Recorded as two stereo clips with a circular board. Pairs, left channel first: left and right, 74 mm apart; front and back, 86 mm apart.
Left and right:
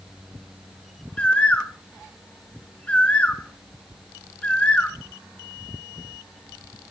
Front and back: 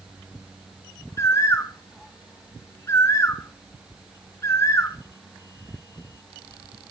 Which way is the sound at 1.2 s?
25° left.